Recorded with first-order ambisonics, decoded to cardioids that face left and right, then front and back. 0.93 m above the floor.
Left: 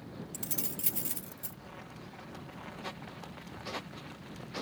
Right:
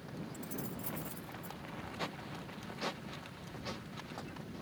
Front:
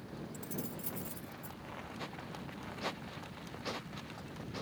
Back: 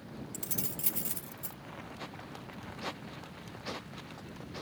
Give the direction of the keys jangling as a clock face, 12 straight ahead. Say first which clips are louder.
Left 5 dB, back 4 dB; 8 o'clock.